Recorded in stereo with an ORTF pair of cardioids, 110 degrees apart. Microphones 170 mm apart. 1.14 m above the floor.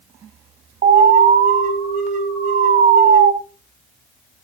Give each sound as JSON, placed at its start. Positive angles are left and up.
{"t": 0.8, "sound": "an alarm", "azimuth_deg": -55, "distance_m": 4.5}